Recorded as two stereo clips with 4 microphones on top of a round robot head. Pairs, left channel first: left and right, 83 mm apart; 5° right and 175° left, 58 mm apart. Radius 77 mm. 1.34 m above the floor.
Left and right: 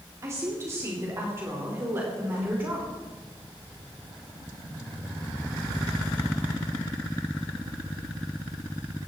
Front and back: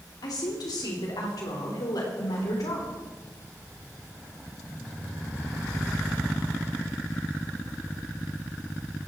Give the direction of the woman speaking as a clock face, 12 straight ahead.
1 o'clock.